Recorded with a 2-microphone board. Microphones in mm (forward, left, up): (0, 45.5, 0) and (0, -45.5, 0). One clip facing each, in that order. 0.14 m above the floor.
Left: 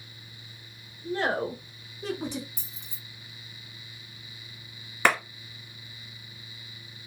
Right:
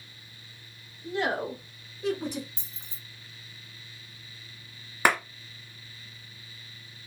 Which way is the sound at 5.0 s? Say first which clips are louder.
Even; 10° right (ahead or behind).